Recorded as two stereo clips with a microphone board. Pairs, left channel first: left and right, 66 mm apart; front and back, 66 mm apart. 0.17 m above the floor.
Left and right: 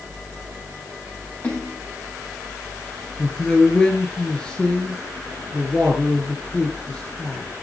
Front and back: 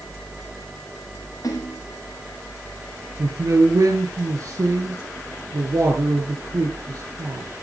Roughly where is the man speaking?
Behind.